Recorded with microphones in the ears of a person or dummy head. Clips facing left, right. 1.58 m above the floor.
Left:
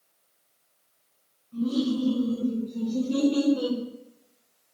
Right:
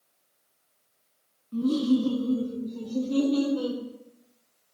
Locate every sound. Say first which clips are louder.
1.5 s laughter: right 3 dB; 65° right (ahead or behind), 0.6 m; by 3.8 s 15° left (ahead or behind), 1.2 m